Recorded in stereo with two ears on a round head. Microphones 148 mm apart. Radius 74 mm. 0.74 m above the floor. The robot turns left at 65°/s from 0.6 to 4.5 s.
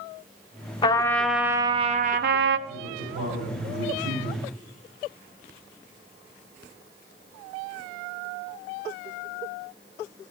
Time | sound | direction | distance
0.8 | a trumpet | 30° left | 0.5 m
2.7 | a man speaking | 65° right | 3 m